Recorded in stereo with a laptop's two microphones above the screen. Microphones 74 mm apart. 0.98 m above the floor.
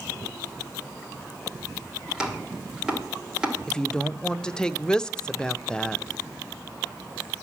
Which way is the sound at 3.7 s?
10° left (ahead or behind).